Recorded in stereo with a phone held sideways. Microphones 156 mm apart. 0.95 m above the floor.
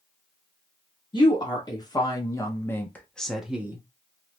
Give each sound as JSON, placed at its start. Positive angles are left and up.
{"t": 1.1, "sound": "a woman speaking", "side_deg": 25, "distance_m": 1.3}